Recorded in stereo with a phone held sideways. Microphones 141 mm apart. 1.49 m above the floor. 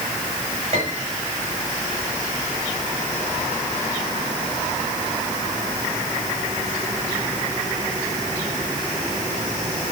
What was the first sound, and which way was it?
A piano, 50° right (ahead or behind).